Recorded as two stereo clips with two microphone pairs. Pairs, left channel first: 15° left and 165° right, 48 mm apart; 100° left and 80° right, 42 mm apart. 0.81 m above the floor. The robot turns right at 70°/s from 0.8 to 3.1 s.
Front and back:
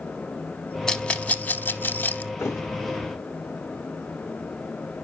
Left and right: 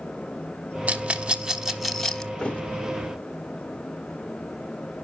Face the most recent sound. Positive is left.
turn(degrees=85)